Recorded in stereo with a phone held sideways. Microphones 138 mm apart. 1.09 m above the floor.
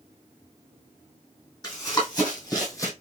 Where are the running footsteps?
30° left (ahead or behind), 1.8 m; by 2.9 s 25° left (ahead or behind), 1.3 m.